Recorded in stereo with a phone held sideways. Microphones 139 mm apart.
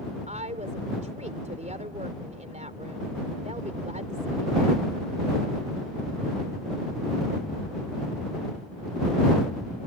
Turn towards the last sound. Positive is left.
turn(degrees=-60)  # may be behind; listen again after turning